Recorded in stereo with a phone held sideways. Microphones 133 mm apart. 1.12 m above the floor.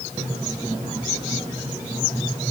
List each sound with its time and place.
Only background noise.